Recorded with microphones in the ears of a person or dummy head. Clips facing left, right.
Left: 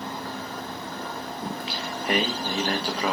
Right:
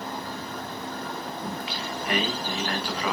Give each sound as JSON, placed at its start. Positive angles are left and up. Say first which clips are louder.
{"t": 1.4, "sound": "singing", "louder": "left 1 dB", "side_deg": 25, "distance_m": 1.0}